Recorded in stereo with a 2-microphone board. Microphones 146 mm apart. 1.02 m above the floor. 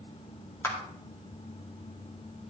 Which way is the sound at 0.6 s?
20° left (ahead or behind).